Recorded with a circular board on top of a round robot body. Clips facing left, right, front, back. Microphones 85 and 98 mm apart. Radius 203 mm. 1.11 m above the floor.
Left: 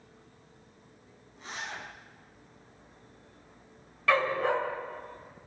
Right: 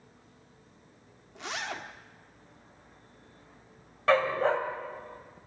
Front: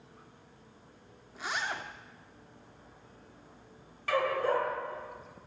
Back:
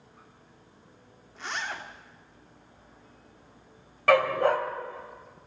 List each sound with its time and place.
1.4 s a zipper: 85° right, 1.9 m
4.1 s a dog barking: 150° right, 2.5 m